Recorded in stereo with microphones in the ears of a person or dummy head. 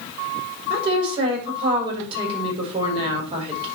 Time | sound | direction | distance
0.7 | a woman speaking | 20° right (ahead or behind) | 5.5 m